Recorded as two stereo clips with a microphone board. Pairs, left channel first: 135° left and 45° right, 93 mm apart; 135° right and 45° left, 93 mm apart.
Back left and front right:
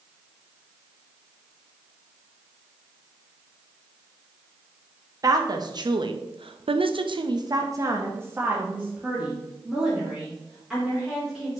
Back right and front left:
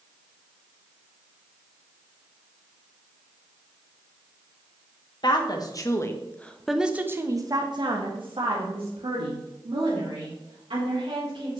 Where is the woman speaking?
95° right, 1.4 m; by 11.6 s 45° left, 3.5 m.